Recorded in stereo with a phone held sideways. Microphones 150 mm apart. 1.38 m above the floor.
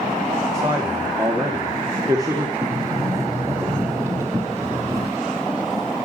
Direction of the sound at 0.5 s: 20° right (ahead or behind).